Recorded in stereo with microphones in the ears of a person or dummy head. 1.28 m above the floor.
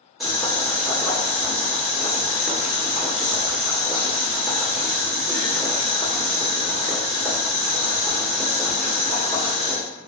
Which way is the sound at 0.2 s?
5° right (ahead or behind).